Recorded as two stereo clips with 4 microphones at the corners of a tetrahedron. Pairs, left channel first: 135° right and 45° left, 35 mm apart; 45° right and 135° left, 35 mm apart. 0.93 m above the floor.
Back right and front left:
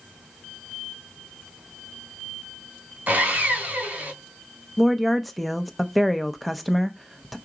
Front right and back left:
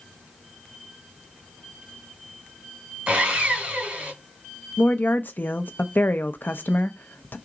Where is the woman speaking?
45° right, 0.6 m.